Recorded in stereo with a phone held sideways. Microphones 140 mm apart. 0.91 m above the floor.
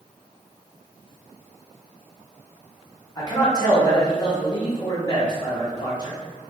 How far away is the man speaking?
About 1.3 m.